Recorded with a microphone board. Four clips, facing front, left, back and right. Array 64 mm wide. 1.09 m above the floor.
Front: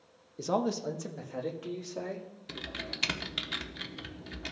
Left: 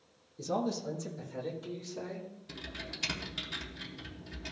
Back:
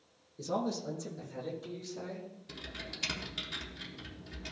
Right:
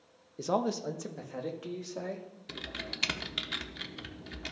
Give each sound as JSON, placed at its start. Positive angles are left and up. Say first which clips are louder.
{"t": 0.4, "sound": "a man speaking", "louder": "right 3 dB, front 4 dB", "azimuth_deg": -55, "distance_m": 0.8}
{"t": 2.5, "sound": "typing on a keyboard", "louder": "right 6 dB, front 8 dB", "azimuth_deg": -40, "distance_m": 0.8}